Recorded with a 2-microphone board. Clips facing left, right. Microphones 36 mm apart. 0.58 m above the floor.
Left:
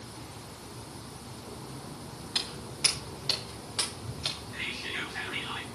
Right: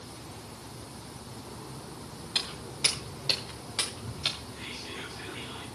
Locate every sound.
2.4 s footsteps: 30° right (ahead or behind), 8 m; by 4.4 s 20° right (ahead or behind), 6.5 m
4.5 s whispering: 60° left (ahead or behind), 5.5 m